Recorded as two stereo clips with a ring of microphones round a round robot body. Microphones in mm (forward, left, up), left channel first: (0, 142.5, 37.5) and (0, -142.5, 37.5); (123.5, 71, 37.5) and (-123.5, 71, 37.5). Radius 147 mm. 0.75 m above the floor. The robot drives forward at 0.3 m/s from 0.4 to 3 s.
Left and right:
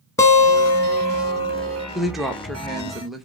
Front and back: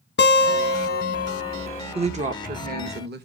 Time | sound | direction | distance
0.2 | a guitar | 15° left | 1.4 m
1.9 | a woman speaking | straight behind | 0.8 m